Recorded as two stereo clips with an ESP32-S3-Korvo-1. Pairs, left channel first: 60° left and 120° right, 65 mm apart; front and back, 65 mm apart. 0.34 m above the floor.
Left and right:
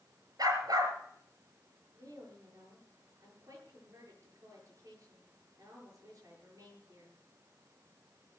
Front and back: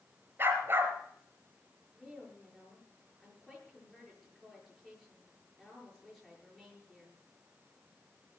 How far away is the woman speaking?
About 7 m.